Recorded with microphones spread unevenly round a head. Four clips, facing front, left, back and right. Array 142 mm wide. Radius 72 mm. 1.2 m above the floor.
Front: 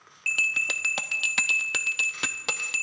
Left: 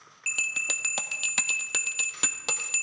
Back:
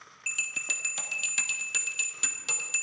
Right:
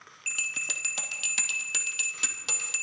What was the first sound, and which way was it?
A bell, 35° left.